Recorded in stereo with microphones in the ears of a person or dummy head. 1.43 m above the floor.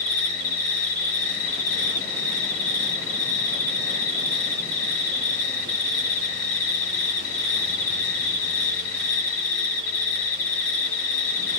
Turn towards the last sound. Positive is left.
turn(degrees=0)  # may be behind; listen again after turning